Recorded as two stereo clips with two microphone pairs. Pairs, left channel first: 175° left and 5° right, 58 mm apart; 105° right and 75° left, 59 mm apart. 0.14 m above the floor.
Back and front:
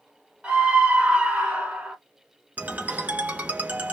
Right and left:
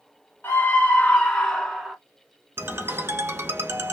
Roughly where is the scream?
Ahead right.